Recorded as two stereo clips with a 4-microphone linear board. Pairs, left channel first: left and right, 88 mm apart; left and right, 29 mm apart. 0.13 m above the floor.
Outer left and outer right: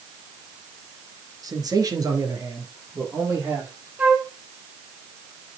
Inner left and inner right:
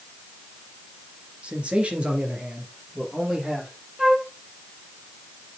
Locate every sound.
1.4 s a man speaking: 45° right (ahead or behind), 2 m; by 3.7 s 35° right (ahead or behind), 4.5 m
4.0 s a flute: 15° right (ahead or behind), 1.8 m